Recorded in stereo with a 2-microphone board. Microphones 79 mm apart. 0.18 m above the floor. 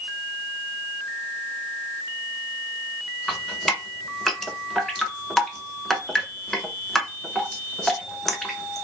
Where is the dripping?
5° left (ahead or behind), 0.6 m.